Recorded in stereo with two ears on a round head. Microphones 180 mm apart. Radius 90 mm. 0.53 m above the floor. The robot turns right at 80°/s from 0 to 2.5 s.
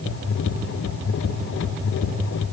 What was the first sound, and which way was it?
Only background noise.